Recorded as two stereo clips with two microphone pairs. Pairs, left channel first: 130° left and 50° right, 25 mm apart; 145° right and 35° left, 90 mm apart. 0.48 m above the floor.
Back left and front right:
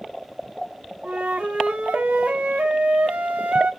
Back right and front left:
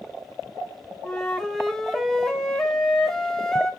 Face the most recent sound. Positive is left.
turn(degrees=-60)